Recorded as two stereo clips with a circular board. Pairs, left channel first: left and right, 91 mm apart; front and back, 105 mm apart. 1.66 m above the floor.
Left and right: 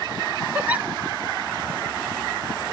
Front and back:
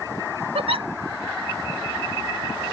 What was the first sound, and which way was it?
A giggle, 160° right.